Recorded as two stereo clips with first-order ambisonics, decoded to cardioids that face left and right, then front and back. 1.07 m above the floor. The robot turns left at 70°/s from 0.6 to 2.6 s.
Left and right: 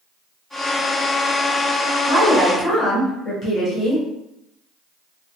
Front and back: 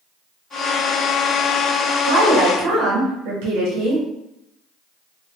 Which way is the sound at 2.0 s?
165° right.